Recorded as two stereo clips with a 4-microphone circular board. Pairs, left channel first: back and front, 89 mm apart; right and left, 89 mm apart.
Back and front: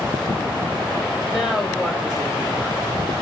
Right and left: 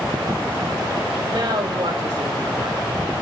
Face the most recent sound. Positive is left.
turn(degrees=70)